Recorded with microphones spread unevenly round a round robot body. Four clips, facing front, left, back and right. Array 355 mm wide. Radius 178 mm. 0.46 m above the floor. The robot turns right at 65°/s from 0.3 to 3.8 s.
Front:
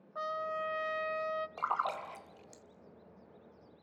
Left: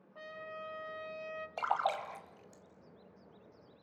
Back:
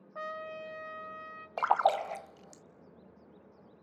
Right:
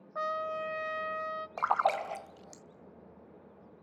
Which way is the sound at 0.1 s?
85° right.